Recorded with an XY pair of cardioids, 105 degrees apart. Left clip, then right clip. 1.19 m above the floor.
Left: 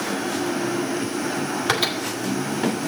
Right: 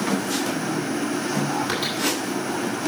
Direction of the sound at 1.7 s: 45° left.